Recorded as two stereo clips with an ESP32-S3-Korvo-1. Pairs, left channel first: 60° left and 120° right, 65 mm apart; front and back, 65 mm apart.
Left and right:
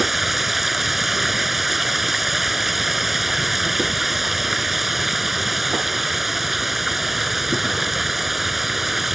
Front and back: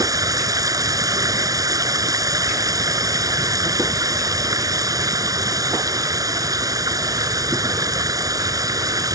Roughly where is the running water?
Behind left.